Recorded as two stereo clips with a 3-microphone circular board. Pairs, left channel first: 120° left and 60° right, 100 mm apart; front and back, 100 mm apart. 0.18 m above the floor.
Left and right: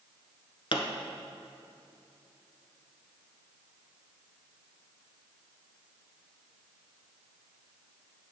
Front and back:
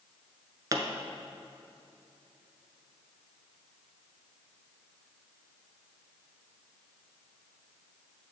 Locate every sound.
0.7 s a pop: 135° left, 0.8 m